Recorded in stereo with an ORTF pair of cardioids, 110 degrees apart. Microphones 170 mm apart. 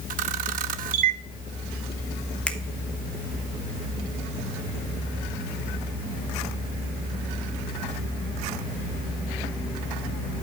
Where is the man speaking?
I don't hear a man speaking.